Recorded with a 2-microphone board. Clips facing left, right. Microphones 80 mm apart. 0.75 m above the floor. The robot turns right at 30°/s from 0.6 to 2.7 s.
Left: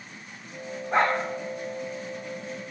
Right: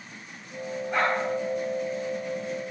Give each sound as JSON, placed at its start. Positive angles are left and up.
{"t": 0.9, "sound": "a dog barking", "side_deg": 30, "distance_m": 9.5}